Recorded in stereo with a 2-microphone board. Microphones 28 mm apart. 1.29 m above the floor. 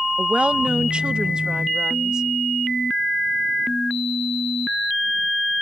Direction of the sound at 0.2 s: 45° right (ahead or behind).